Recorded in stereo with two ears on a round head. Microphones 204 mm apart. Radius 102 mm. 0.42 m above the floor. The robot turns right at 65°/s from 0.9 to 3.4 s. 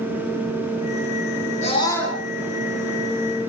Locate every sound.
1.6 s a scream: 145° left, 5 m; by 2.2 s 175° right, 5 m